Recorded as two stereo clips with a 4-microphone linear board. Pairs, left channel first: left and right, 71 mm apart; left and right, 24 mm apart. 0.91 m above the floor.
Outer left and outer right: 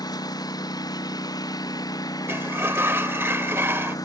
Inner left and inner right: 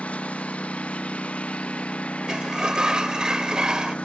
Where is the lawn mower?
65° left (ahead or behind); by 4.1 s 60° left (ahead or behind).